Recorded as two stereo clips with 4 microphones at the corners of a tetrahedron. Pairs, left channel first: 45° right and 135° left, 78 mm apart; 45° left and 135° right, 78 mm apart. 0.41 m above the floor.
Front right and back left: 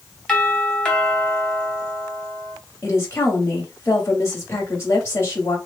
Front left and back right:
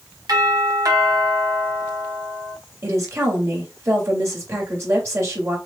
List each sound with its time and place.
0.3 s a doorbell: 120° right, 2.5 m
2.8 s a woman speaking: 90° right, 2.5 m